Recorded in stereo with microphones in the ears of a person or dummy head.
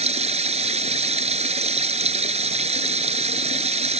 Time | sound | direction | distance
0.0 | running water | 40° right (ahead or behind) | ?